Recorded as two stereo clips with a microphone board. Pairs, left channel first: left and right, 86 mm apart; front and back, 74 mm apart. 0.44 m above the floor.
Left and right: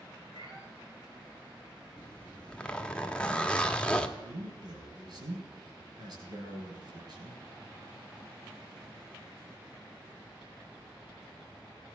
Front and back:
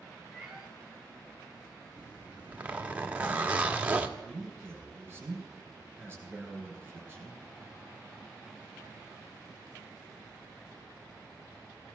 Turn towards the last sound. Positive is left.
turn(degrees=-120)